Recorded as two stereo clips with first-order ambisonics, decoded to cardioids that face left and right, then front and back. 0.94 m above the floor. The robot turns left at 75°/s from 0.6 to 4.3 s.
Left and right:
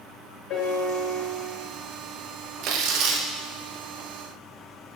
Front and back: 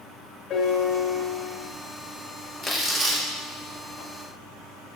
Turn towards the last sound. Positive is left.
turn(degrees=170)